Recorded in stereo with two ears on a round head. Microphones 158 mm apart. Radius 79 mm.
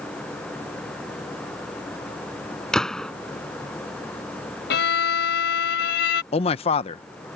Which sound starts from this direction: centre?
A gunshot, at 2.7 s.